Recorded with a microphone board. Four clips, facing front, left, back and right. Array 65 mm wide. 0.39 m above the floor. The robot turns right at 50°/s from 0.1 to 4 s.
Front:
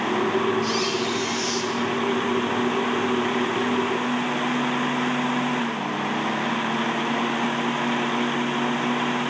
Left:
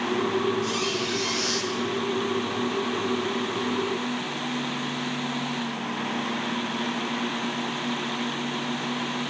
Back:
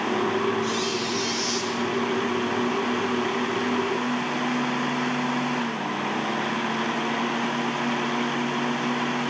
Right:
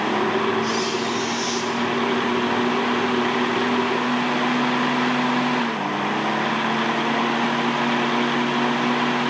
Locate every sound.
0.6 s a squeak: 45° left, 4 m; by 1.7 s 100° left, 4 m